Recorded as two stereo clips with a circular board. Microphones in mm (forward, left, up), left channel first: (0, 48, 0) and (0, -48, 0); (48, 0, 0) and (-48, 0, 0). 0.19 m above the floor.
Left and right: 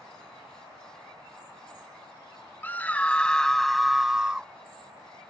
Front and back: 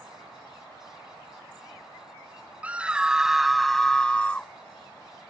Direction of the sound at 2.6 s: 130° left.